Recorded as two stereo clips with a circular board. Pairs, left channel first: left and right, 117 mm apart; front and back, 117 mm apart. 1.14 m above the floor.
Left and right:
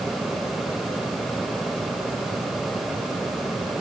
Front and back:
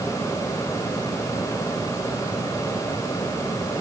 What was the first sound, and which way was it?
Only background noise.